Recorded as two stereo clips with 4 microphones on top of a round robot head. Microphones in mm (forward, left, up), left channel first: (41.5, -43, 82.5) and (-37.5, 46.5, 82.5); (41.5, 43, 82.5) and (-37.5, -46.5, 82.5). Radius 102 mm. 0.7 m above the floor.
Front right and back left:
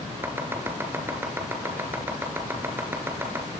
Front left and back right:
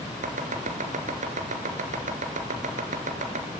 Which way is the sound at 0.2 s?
155° right.